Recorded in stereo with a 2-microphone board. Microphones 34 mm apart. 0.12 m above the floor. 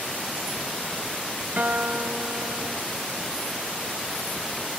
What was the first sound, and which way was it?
A guitar, 50° right (ahead or behind).